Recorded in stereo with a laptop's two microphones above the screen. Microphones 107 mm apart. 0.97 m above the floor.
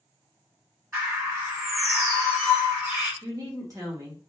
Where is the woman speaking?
35° right (ahead or behind), 1.2 m.